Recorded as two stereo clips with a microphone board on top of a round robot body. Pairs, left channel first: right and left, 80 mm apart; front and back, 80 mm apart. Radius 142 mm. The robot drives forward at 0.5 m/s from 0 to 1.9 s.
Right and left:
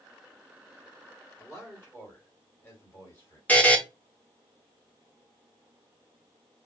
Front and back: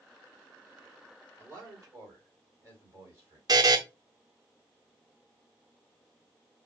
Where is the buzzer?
160° right, 0.7 m.